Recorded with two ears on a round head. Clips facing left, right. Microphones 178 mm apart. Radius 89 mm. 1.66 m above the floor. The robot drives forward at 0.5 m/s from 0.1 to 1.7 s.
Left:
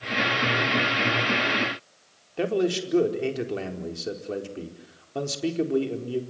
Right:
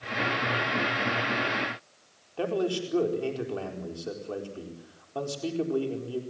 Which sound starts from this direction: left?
A man speaking, at 2.4 s.